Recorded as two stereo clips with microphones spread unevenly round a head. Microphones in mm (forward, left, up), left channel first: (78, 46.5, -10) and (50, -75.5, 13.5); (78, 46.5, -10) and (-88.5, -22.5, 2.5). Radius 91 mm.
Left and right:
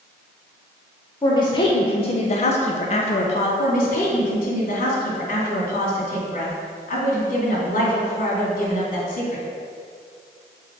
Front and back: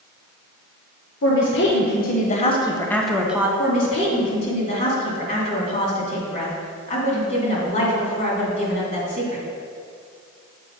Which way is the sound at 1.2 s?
25° left.